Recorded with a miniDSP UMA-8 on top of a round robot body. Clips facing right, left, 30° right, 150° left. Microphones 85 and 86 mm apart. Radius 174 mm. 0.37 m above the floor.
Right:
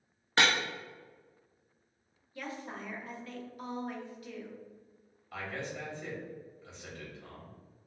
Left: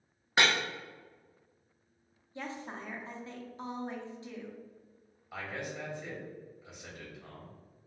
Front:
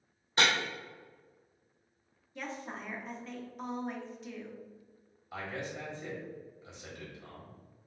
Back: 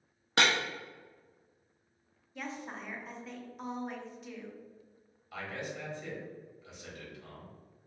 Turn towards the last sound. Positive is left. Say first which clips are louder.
# even, front 1 dB
turn(degrees=25)